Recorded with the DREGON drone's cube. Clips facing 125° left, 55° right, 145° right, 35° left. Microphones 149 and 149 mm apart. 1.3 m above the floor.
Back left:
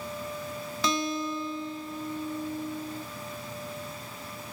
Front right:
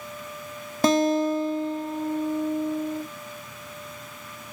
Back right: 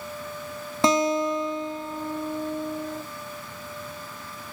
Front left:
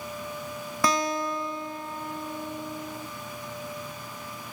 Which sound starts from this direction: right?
A guitar, at 0.8 s.